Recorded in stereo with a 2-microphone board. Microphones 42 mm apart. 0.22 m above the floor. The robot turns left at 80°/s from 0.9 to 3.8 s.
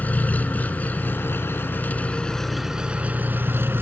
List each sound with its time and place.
0.0 s an engine running: 135° left, 1.5 m; by 3.8 s 100° right, 1.5 m